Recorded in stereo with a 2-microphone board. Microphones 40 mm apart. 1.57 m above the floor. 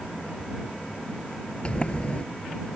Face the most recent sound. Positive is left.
turn(degrees=25)  # may be behind; listen again after turning